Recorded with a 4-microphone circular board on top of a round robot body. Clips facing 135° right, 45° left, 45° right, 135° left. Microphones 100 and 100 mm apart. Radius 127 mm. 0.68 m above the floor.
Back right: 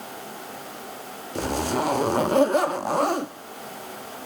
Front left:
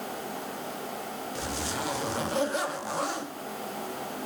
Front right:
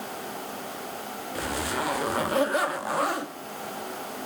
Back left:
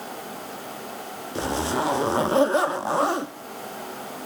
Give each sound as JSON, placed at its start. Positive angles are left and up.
{"t": 1.4, "sound": "a zipper", "azimuth_deg": -165, "distance_m": 1.1}